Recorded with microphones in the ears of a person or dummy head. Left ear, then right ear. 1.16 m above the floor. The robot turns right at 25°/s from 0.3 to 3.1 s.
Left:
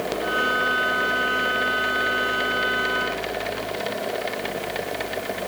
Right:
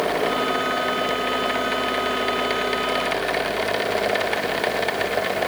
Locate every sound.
Only background noise.